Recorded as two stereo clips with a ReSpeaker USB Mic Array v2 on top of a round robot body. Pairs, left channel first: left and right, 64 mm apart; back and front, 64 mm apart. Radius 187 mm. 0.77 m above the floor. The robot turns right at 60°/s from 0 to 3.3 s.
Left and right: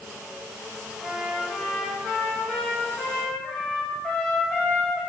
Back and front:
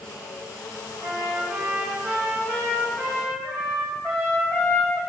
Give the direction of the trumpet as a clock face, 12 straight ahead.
11 o'clock.